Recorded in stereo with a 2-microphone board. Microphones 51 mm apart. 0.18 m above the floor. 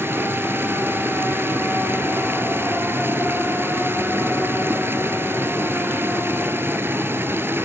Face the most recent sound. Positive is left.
turn(degrees=-45)  # may be behind; listen again after turning